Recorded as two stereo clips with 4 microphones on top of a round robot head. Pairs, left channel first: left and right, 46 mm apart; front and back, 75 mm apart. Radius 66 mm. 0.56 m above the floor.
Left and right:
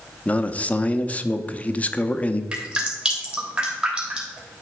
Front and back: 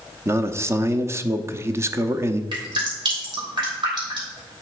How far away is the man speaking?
About 0.8 m.